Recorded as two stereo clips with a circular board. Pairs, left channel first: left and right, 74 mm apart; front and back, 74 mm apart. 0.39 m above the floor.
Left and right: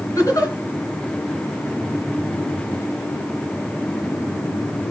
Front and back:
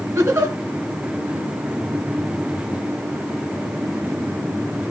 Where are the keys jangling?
No keys jangling in this recording.